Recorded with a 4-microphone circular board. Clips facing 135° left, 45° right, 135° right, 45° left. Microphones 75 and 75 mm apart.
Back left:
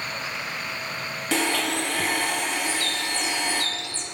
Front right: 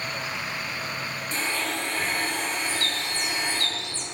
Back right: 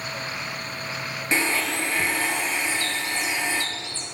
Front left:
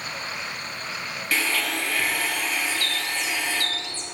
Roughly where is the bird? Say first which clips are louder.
Back left 2 dB, back right 1 dB; right.